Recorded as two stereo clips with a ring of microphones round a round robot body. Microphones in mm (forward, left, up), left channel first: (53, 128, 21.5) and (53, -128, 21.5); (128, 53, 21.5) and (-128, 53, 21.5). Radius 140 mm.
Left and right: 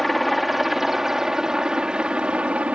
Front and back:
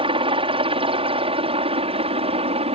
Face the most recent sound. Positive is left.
turn(degrees=-170)